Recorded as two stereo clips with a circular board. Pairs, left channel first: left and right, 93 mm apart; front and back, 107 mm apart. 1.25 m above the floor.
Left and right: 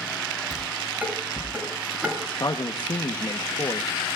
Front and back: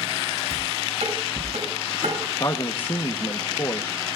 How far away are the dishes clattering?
About 8.5 m.